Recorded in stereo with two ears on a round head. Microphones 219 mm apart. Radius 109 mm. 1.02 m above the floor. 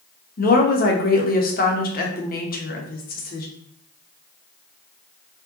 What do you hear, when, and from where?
0.4 s a woman speaking: 35° left (ahead or behind), 0.9 m